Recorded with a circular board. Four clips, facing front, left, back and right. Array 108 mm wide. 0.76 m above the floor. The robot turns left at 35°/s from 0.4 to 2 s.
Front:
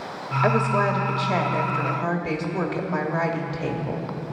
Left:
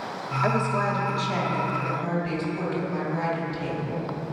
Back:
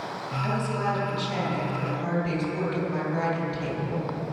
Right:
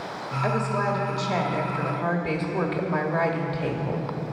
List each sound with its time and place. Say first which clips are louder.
0.4 s a woman speaking: left 1 dB, front 7 dB; 10° left, 1.3 m; by 4.1 s 45° right, 1.3 m